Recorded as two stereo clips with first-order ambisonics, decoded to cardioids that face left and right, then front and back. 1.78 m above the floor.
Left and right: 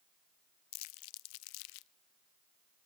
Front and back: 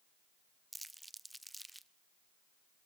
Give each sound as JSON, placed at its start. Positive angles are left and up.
{"t": 0.7, "sound": "crumpling", "azimuth_deg": 95, "distance_m": 0.5}